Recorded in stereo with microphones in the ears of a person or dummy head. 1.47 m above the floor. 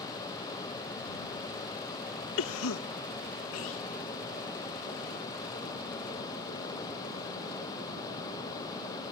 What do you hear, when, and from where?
2.4 s a cough: 80° left